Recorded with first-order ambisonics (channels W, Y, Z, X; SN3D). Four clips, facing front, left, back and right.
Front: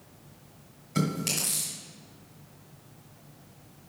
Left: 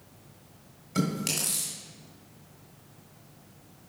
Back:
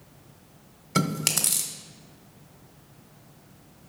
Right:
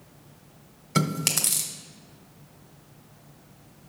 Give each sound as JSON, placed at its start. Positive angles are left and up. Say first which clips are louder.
{"t": 0.9, "sound": "chewing", "louder": "right 4 dB, back 3 dB", "azimuth_deg": -140, "distance_m": 1.3}